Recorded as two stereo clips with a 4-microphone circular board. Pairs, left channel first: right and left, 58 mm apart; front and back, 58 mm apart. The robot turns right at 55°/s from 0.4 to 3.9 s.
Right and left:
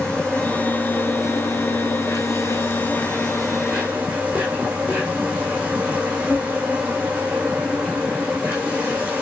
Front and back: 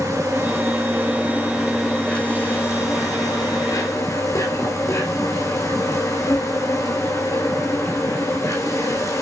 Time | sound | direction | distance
0.0 | an insect | 170° right | 4.5 m